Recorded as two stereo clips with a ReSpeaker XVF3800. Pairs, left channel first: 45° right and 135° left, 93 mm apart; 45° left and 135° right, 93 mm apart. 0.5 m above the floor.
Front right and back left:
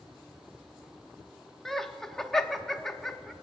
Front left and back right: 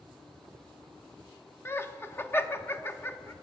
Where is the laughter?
35° left, 0.7 m.